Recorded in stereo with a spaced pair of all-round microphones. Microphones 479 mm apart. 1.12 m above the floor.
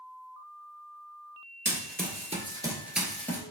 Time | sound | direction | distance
1.6 | running footsteps | 25° right (ahead or behind) | 1.2 m